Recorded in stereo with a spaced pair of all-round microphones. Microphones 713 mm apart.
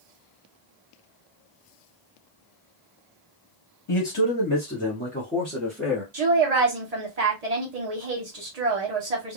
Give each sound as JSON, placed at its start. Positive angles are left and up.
{"t": 3.9, "sound": "a man speaking", "side_deg": 45, "distance_m": 0.8}
{"t": 6.1, "sound": "a woman speaking", "side_deg": -60, "distance_m": 1.2}